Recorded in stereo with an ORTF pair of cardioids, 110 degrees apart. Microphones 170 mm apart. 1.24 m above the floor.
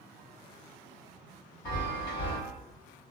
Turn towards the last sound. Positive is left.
turn(degrees=65)